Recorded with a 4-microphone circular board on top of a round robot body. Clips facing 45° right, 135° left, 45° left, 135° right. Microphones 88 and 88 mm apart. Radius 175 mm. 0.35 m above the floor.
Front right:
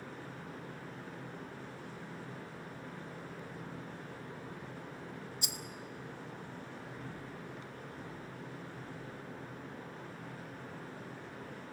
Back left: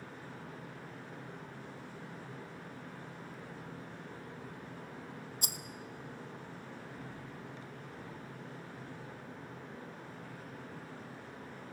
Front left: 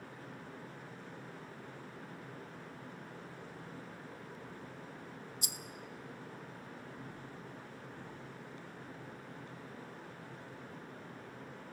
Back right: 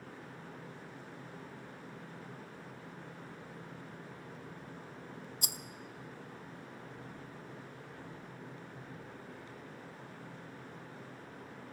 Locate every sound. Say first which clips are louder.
5.4 s a rattle: even, back right 2 dB; 175° right, 0.5 m